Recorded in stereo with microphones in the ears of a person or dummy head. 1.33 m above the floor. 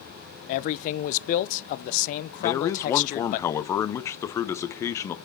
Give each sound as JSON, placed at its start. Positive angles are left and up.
{"t": 0.5, "sound": "a man speaking", "side_deg": 45, "distance_m": 0.6}
{"t": 2.4, "sound": "a man speaking", "side_deg": 10, "distance_m": 0.9}